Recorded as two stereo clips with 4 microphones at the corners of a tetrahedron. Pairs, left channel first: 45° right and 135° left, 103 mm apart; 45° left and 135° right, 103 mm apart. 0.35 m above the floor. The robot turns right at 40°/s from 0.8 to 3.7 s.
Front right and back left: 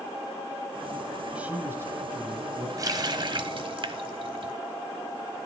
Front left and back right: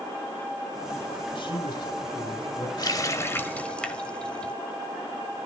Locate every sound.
1.4 s a man speaking: 60° left, 2.5 m; by 2.7 s 110° left, 2.5 m
2.8 s a running tap: 90° left, 1.2 m; by 4.5 s 125° left, 1.2 m